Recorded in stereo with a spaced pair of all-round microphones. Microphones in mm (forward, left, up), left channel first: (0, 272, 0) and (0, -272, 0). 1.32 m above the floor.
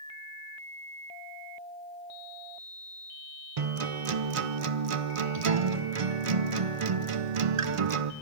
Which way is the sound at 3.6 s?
70° right (ahead or behind).